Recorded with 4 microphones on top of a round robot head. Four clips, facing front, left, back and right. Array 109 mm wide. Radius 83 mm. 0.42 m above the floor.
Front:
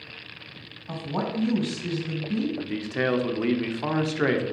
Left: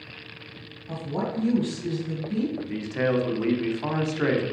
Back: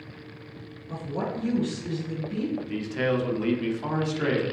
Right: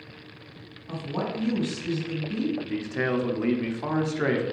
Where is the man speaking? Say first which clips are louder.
Left 1 dB, front 1 dB; straight ahead, 1.3 m.